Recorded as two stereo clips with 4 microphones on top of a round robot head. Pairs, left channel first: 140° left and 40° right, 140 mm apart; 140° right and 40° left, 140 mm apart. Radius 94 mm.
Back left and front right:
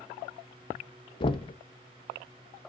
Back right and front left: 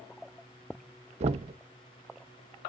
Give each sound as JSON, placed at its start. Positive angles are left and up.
{"t": 1.2, "sound": "knocking", "azimuth_deg": 85, "distance_m": 0.6}